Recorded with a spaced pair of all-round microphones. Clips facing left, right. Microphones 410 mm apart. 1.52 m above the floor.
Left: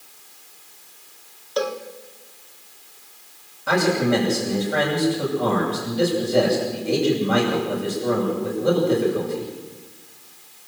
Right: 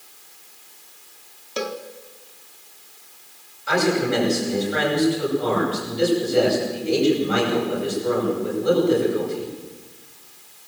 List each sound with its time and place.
1.6 s a cowbell: 40° right (ahead or behind), 1.8 m
3.7 s a man speaking: 65° left (ahead or behind), 8.5 m